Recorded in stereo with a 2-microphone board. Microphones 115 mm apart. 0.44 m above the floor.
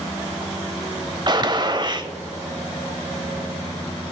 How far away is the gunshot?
About 0.8 m.